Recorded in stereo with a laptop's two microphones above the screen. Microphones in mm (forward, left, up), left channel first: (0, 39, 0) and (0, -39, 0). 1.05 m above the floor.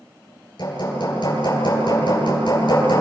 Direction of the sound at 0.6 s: 60° left (ahead or behind).